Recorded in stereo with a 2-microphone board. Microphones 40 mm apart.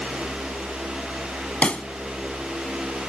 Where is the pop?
35° left (ahead or behind).